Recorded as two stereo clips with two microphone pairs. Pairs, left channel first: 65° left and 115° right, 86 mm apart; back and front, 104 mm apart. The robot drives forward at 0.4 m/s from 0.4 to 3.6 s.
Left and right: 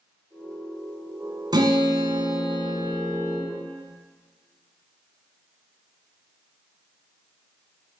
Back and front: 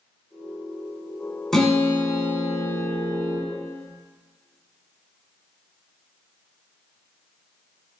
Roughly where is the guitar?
Right.